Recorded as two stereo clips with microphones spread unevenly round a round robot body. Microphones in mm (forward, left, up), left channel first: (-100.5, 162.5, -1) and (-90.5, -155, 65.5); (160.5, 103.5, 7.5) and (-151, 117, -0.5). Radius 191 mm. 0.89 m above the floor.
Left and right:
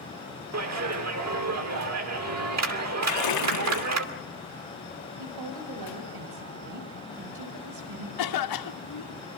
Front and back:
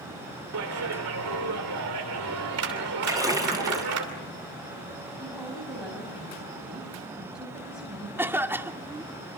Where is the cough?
95° left, 2.0 m.